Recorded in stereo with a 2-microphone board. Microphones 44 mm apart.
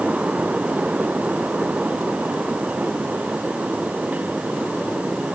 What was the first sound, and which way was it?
Only background noise.